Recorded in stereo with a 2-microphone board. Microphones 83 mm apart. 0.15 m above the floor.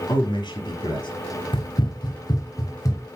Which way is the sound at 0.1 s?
65° left (ahead or behind).